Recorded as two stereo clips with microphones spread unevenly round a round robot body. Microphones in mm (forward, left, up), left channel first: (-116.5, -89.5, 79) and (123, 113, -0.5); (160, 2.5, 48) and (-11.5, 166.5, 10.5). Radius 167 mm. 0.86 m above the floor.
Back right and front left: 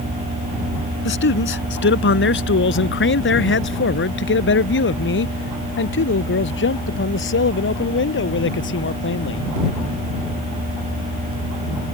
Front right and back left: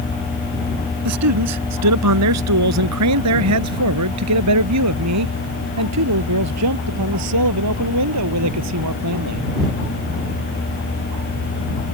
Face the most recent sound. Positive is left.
turn(degrees=165)